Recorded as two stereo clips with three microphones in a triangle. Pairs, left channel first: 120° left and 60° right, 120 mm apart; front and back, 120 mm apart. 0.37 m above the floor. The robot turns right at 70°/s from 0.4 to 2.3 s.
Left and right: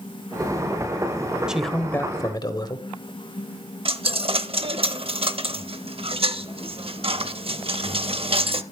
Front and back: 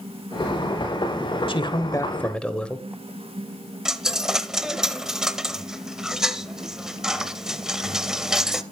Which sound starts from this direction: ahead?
A man speaking, at 1.5 s.